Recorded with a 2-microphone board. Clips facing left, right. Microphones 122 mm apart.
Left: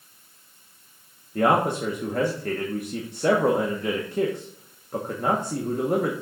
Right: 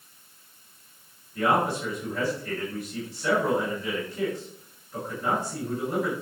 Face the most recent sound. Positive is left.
turn(degrees=55)  # may be behind; listen again after turning